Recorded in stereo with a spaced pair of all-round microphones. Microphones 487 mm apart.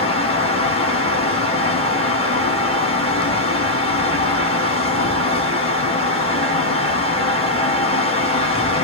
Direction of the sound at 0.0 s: 10° left (ahead or behind).